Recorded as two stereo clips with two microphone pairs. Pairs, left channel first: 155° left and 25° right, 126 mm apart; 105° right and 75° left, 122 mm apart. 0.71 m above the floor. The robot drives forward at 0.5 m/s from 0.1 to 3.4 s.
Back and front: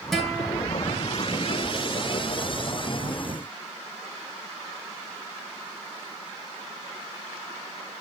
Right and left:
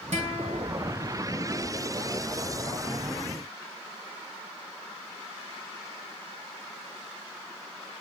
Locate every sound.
0.1 s a guitar: 65° left, 3.5 m; by 0.7 s 70° left, 3.5 m